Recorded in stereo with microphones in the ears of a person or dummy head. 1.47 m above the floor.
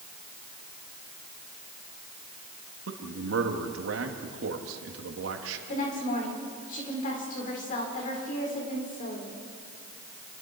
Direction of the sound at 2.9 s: 90° right.